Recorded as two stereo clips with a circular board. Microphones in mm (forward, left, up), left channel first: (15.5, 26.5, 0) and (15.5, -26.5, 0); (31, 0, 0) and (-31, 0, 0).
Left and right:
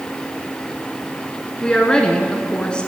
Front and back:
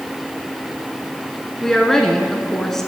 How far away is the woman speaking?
About 1.1 m.